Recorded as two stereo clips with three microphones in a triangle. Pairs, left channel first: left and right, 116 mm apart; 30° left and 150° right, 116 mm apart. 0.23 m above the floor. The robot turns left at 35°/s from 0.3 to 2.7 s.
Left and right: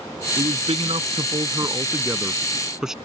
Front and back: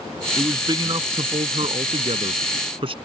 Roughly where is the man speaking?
Right.